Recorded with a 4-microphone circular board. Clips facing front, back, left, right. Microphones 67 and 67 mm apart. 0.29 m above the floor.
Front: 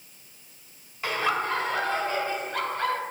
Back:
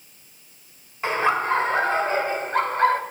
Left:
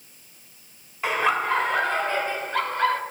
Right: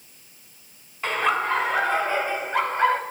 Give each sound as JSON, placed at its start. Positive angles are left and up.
{"t": 1.0, "sound": "laughter", "azimuth_deg": 165, "distance_m": 1.7}